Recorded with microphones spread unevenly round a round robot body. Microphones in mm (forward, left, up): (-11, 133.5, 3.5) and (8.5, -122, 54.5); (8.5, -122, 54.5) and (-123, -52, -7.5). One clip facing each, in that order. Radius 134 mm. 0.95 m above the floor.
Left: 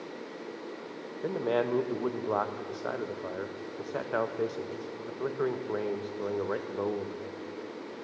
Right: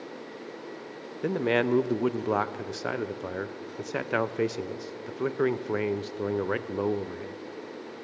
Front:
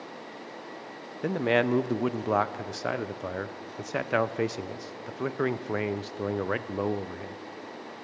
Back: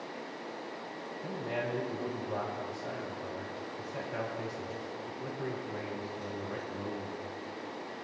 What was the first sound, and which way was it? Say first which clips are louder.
A man speaking: right 4 dB, front 12 dB; 35° right.